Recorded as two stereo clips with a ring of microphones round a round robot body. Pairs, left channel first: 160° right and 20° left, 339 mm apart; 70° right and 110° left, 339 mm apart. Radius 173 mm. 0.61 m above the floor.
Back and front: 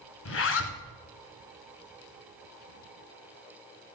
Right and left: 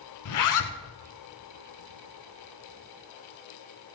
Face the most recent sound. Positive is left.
turn(degrees=-105)